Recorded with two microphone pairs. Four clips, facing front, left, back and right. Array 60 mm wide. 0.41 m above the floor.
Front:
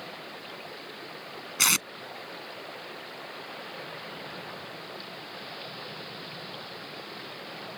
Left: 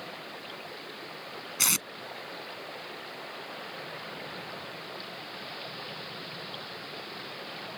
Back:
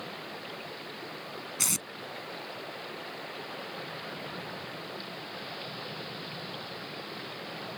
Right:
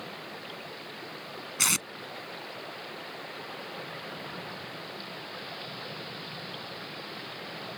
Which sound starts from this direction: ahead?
Tape being pulled, at 1.6 s.